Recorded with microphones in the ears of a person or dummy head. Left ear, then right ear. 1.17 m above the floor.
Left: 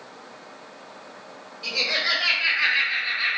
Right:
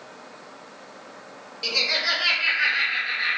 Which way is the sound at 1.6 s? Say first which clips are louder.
Right 1 dB; 25° right (ahead or behind).